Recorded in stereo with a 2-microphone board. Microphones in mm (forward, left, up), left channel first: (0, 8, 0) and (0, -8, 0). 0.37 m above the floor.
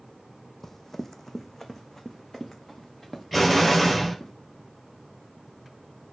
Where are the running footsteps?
20° left (ahead or behind), 0.7 m; by 4.3 s 25° left (ahead or behind), 2.5 m.